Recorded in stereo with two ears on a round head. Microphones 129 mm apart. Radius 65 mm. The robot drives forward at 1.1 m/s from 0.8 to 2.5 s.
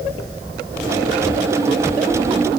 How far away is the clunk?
I don't hear a clunk.